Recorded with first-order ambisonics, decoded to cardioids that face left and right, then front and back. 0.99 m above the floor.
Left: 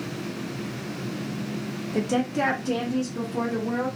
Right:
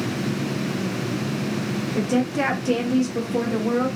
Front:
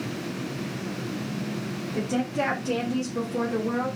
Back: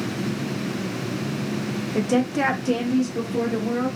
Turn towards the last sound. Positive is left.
turn(degrees=-80)